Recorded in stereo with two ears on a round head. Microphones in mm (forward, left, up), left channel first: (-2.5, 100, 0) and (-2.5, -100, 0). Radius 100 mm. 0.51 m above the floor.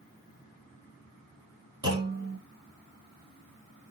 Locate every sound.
1.8 s a clunk: 20° right (ahead or behind), 1.3 m